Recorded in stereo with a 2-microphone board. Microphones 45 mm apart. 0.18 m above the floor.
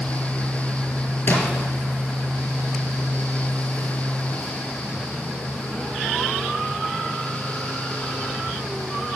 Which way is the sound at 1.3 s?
45° left (ahead or behind).